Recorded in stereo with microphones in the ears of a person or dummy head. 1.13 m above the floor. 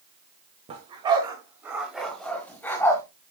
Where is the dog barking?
30° right (ahead or behind), 1.2 m; by 3.0 s 15° left (ahead or behind), 1.8 m.